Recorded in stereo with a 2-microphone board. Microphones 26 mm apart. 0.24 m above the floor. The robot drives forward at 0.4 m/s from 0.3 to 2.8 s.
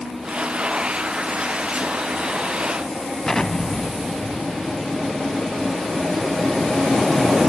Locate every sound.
3.2 s an explosion: 15° left (ahead or behind), 0.5 m